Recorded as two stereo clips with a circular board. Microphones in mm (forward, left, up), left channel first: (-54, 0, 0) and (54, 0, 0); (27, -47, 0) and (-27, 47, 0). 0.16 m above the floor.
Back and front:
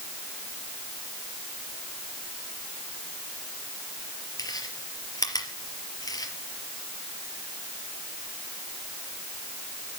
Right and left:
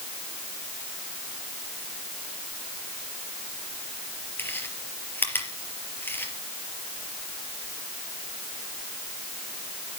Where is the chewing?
130° right, 4 m.